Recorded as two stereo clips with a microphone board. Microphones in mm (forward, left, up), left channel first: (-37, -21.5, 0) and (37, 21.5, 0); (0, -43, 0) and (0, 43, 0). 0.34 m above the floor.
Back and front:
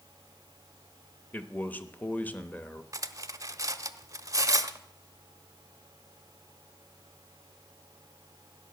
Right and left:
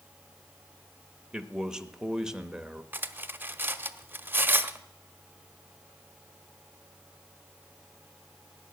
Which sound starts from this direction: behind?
A man speaking, at 1.3 s.